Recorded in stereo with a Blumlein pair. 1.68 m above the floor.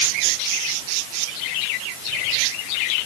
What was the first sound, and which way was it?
Only background noise.